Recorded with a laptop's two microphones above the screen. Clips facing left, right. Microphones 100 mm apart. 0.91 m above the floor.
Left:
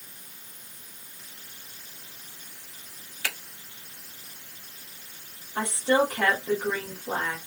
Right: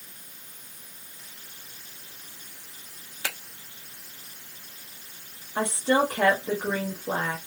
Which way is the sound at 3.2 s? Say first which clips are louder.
Even; 25° right (ahead or behind).